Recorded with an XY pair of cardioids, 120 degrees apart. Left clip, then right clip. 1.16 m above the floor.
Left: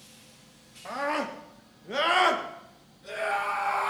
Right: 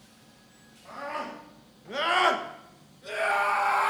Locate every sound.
0.8 s a scream: 65° left, 1.6 m; by 3.9 s 40° right, 2.5 m